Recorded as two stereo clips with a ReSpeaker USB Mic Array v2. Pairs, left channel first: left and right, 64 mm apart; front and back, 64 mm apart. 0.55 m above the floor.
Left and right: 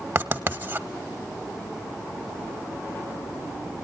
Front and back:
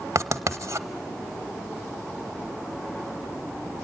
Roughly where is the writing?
Behind right.